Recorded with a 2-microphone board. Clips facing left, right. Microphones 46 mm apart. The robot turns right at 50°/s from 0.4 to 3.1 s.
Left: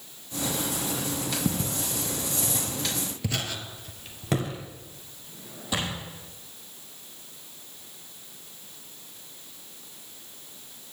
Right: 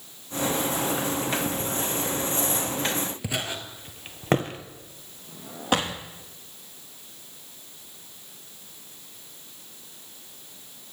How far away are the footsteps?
About 1.2 m.